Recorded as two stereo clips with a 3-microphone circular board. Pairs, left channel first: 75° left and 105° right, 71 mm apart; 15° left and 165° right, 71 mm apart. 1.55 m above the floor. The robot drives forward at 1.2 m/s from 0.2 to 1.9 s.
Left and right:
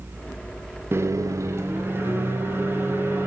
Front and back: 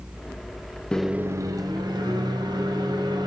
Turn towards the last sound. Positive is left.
turn(degrees=-160)